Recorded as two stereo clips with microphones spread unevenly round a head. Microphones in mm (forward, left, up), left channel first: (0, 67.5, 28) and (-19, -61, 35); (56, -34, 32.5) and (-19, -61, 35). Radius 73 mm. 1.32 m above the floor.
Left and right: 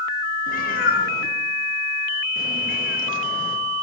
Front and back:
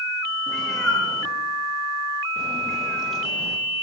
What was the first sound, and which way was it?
A cat meowing, 110° left.